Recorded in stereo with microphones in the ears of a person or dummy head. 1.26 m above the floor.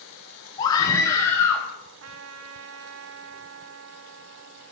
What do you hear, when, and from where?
0.6 s a scream: 20° left (ahead or behind), 0.8 m; by 1.7 s 10° left (ahead or behind), 1.4 m
2.0 s a trumpet: 75° right (ahead or behind), 0.8 m